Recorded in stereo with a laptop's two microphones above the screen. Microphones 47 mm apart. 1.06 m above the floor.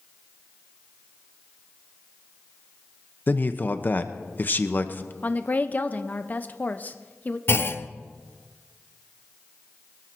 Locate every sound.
3.3 s a man speaking: 35° left (ahead or behind), 0.9 m
5.2 s a woman speaking: 30° left (ahead or behind), 0.8 m
7.5 s a clunk: 50° left (ahead or behind), 0.6 m